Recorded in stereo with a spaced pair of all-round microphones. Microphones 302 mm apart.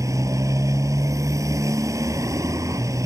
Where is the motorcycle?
10° right (ahead or behind).